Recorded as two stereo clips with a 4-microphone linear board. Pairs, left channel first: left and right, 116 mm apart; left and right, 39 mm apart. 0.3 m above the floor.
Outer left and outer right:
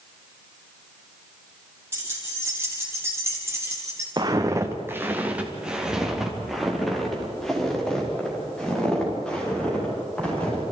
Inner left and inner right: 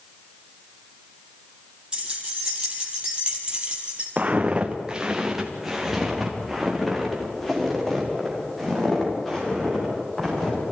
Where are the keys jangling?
20° right (ahead or behind), 6.5 m; by 4.1 s 25° right (ahead or behind), 4.5 m.